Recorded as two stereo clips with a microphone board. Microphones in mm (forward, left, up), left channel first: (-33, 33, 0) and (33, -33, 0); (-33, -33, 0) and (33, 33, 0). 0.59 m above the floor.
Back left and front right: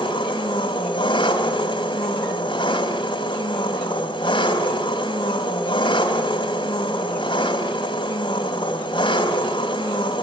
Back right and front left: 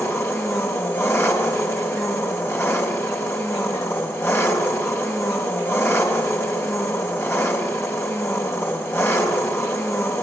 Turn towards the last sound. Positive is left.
turn(degrees=165)